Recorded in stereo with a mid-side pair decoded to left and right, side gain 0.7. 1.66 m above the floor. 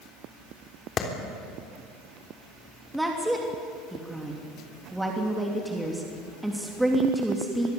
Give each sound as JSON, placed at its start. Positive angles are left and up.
{"t": 1.0, "sound": "a clap", "azimuth_deg": 35, "distance_m": 3.5}
{"t": 2.9, "sound": "a woman speaking", "azimuth_deg": -5, "distance_m": 3.0}